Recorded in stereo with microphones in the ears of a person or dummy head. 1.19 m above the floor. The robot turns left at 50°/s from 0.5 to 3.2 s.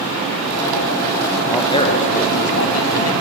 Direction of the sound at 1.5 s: 165° left.